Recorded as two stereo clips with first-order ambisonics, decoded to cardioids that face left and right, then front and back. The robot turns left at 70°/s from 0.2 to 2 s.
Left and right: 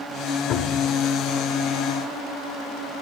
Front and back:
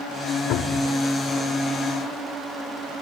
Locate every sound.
0.5 s a cupboard door: 45° left, 1.6 m; by 0.9 s 15° left, 1.6 m